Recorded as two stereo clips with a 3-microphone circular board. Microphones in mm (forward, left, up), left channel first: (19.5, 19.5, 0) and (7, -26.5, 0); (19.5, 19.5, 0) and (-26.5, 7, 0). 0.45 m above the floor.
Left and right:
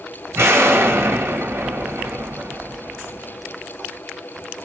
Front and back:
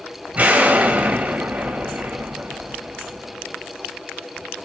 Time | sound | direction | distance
0.3 | an explosion | 110° right | 1.8 m